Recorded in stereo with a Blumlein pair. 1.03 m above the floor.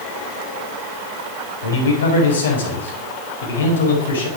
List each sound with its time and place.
1.6 s a man speaking: 65° left, 4.5 m